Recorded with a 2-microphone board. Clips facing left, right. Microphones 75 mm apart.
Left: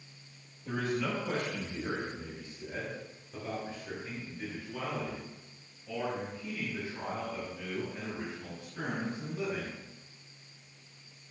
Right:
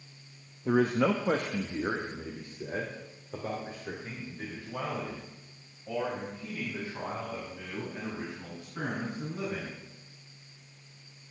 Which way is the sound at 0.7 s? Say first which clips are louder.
Right 8 dB; 55° right (ahead or behind).